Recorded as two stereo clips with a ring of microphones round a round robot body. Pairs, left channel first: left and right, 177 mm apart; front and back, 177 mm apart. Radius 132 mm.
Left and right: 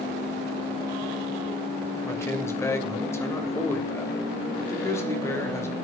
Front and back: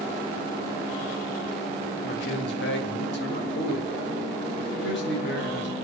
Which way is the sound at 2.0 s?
15° left.